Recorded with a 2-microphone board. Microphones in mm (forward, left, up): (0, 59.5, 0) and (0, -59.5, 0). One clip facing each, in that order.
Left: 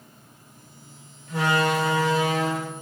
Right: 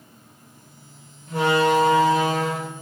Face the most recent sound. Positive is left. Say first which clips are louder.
# right 4 dB
turn(degrees=-60)  # may be behind; listen again after turning